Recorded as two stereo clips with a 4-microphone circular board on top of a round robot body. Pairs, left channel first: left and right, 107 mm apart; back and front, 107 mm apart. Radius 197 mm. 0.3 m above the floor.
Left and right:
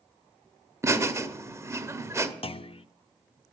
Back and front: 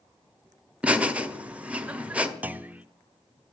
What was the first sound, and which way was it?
Laughter, 65° right.